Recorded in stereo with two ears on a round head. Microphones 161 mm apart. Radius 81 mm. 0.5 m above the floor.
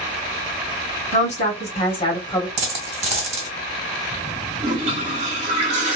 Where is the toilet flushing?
40° right (ahead or behind), 1.0 m.